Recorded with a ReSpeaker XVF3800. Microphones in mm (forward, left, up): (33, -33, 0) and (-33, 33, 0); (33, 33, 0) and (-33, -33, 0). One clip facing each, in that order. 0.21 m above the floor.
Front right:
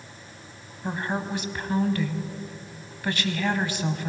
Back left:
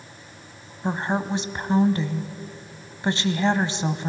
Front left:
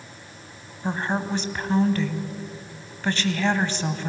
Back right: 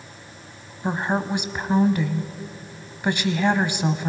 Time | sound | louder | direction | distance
0.8 | a woman speaking | back left 4 dB, back right 2 dB | 160° left | 1.1 m